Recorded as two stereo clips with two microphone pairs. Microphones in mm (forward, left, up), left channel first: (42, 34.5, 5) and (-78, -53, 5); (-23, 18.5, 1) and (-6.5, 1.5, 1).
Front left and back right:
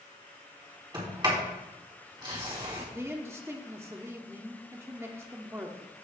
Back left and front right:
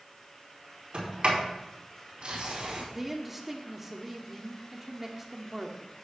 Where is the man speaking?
110° right, 1.0 m.